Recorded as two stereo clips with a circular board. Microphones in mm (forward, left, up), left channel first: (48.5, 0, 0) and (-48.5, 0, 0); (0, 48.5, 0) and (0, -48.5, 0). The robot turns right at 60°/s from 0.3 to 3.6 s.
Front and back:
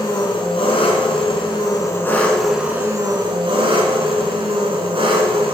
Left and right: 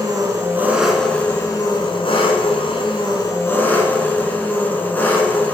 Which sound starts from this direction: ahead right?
An engine running, at 0.0 s.